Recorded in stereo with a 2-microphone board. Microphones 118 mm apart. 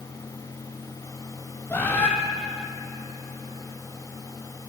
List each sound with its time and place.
1.7 s a bird: 20° left (ahead or behind), 3 m